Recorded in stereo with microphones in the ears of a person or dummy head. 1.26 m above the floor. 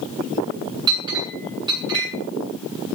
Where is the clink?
20° right (ahead or behind), 7.5 m.